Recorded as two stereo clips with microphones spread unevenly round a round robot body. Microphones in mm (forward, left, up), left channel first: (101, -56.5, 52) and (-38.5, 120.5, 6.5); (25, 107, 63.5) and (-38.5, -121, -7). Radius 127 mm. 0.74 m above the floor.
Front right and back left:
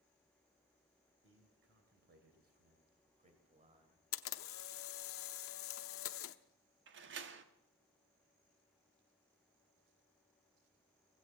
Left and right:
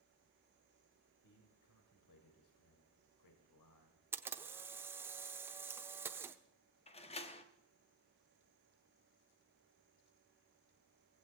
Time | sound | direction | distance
1.2 | a man speaking | 95° left | 3 m
4.1 | a camera shutter | 25° right | 0.8 m
6.9 | a door slam | 145° left | 1.1 m